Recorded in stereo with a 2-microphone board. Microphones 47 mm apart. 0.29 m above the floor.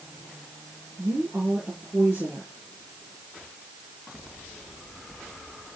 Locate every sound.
1.0 s a woman speaking: 45° right (ahead or behind), 5 m